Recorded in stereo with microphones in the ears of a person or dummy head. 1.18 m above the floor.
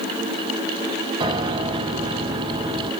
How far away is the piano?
About 0.9 m.